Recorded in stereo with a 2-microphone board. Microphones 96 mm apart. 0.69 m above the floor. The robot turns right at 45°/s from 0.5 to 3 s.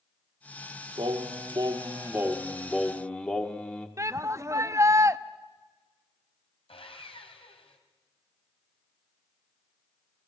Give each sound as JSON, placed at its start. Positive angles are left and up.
{"t": 1.0, "sound": "singing", "azimuth_deg": -80, "distance_m": 1.6}
{"t": 4.0, "sound": "a shout", "side_deg": -30, "distance_m": 0.7}
{"t": 6.7, "sound": "sawing", "side_deg": 75, "distance_m": 3.0}